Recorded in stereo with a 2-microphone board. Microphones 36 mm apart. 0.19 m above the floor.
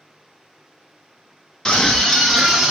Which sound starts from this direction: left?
A scream, at 1.6 s.